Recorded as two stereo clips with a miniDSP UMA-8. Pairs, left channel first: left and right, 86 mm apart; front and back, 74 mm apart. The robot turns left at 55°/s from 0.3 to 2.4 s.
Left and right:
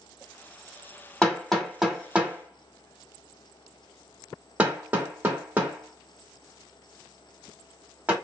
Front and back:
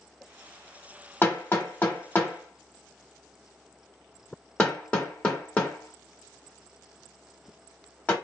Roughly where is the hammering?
Ahead.